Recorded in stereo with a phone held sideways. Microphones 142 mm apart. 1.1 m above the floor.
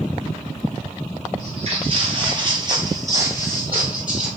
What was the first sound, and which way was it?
Footsteps, 50° right (ahead or behind).